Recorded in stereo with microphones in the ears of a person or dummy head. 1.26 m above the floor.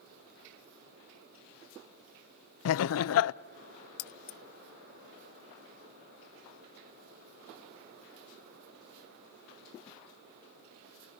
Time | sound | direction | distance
2.6 | laughter | 85° left | 0.5 m
4.0 | keys jangling | 50° left (ahead or behind) | 0.5 m